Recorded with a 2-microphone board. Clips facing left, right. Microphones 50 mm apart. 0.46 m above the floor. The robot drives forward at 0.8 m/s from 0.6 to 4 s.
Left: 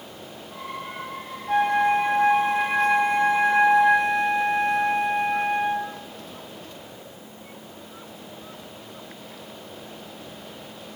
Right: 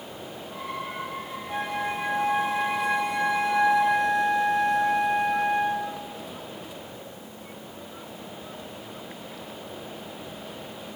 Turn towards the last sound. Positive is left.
turn(degrees=35)  # may be behind; listen again after turning